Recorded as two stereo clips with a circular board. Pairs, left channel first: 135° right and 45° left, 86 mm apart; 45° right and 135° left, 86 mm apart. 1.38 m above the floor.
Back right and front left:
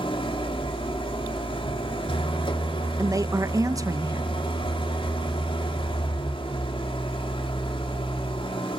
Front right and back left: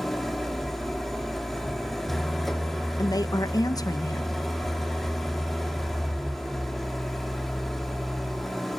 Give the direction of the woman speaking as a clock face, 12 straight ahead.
12 o'clock.